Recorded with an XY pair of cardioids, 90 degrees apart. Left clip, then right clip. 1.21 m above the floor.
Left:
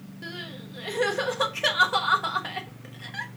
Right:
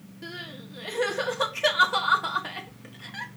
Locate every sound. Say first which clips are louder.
0.2 s crying: left 1 dB; 15° left, 1.1 m